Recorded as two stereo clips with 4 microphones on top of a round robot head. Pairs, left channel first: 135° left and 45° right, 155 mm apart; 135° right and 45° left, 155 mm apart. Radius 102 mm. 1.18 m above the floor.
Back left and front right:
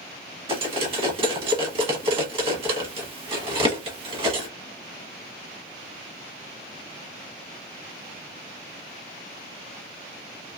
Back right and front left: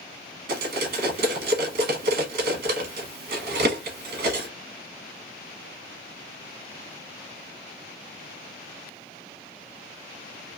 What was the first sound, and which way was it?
Cutlery clinking, 15° left.